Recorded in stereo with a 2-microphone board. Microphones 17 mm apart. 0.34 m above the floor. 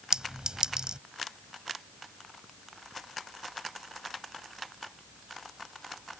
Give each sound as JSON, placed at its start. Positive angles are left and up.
{"t": 0.1, "sound": "a clink", "side_deg": -60}